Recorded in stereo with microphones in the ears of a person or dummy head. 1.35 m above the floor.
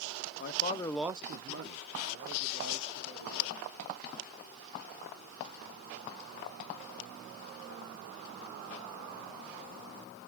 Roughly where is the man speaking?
Left.